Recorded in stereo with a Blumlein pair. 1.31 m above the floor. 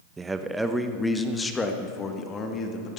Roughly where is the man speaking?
Ahead.